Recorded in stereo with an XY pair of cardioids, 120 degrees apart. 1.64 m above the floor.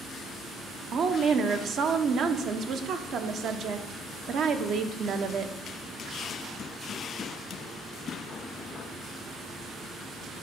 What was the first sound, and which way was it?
A woman speaking, 55° right.